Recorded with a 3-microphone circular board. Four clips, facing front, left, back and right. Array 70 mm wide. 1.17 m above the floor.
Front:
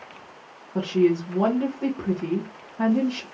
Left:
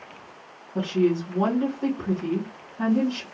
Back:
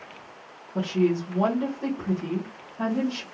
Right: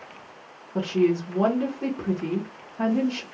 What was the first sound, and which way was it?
A woman speaking, 45° right.